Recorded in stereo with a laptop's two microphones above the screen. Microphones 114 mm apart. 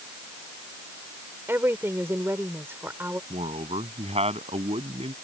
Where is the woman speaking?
20° right (ahead or behind).